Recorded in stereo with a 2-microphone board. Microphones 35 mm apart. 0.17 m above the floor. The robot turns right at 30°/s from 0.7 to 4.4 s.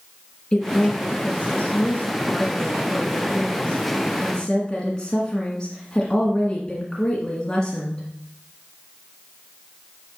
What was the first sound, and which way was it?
A woman speaking, 40° left.